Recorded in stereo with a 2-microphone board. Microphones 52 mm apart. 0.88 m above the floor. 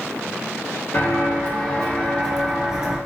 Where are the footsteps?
45° left (ahead or behind), 1.1 m; by 3.0 s 20° right (ahead or behind), 0.8 m.